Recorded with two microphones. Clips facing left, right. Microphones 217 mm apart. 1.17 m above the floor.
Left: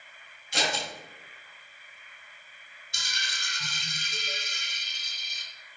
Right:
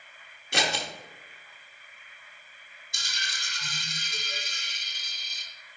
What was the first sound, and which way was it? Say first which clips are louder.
Scissors: right 1 dB; 70° right (ahead or behind).